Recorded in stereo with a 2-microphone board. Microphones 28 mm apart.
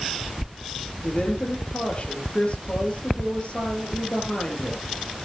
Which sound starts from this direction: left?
A woman speaking, at 1.0 s.